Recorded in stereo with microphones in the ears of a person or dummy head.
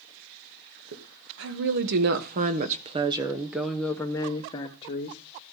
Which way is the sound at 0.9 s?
75° right (ahead or behind).